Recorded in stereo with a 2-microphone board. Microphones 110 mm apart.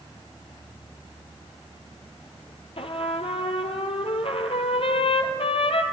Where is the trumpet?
65° left (ahead or behind), 0.6 m.